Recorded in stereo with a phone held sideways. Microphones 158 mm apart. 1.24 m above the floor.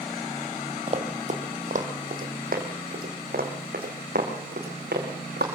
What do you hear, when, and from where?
0.9 s running footsteps: 40° right (ahead or behind), 3 m; by 5.5 s 80° right, 6 m